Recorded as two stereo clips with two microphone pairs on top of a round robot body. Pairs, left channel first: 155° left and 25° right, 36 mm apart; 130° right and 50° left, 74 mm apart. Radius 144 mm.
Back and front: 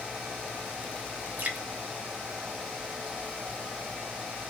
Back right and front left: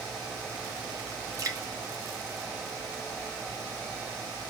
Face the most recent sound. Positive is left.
turn(degrees=15)